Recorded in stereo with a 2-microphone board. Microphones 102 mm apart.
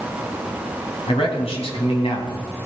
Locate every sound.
1.1 s a man speaking: 65° left (ahead or behind), 3.5 m; by 2.7 s 60° left (ahead or behind), 3 m